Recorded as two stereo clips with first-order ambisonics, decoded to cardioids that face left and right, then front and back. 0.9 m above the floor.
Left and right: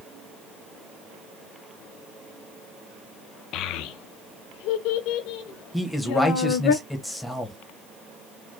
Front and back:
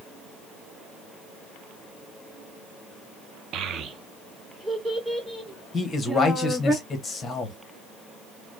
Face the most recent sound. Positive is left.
turn(degrees=15)